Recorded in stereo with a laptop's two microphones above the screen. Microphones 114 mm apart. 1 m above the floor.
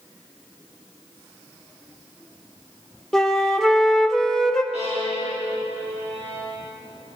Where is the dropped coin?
I don't hear a dropped coin.